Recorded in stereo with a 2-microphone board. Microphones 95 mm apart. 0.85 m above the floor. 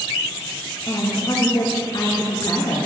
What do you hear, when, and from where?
0.9 s a woman speaking: 45° left (ahead or behind), 2 m